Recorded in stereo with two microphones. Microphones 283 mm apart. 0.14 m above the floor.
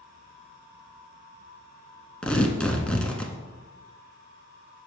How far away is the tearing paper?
About 0.9 m.